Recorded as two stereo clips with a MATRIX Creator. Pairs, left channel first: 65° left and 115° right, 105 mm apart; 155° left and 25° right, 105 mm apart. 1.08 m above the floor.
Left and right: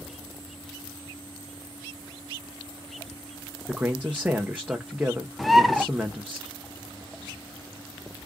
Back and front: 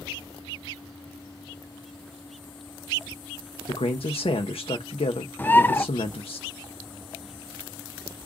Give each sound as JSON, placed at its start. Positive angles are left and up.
{"t": 3.7, "sound": "a man speaking", "azimuth_deg": 170, "distance_m": 0.7}
{"t": 5.4, "sound": "a bird", "azimuth_deg": 155, "distance_m": 0.5}